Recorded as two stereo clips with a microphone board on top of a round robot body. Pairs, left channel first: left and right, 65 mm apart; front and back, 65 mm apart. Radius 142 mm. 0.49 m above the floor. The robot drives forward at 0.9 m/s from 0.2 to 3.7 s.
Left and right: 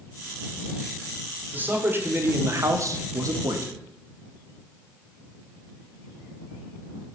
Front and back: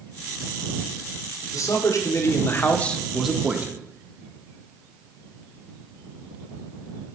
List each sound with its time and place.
1.5 s a man speaking: 30° right, 1.9 m; by 3.8 s 120° right, 1.2 m